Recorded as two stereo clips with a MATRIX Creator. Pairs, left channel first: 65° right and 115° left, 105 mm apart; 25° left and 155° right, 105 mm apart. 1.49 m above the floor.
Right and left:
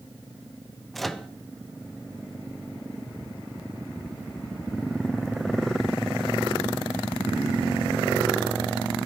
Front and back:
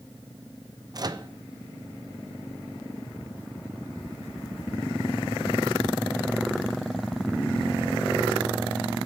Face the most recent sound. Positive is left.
turn(degrees=-155)